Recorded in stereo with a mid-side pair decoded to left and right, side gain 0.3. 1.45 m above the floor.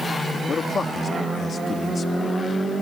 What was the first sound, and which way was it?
A man speaking, 65° left.